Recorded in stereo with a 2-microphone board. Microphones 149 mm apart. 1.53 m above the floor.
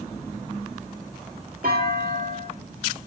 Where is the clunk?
70° right (ahead or behind), 2 m.